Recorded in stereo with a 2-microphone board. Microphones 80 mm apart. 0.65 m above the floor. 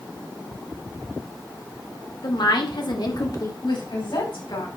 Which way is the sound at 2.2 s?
65° left (ahead or behind).